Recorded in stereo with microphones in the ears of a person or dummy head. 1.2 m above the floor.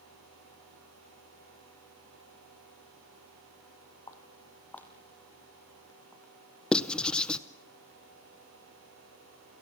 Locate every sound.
4.1 s footsteps: 15° left (ahead or behind), 1.8 m; by 6.3 s 10° right (ahead or behind), 3 m
6.7 s writing: centre (ahead or behind), 0.6 m